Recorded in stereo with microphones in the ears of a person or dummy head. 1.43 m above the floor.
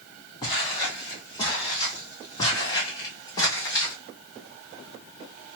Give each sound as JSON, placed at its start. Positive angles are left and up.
{"t": 0.4, "sound": "footsteps", "side_deg": 20, "distance_m": 2.5}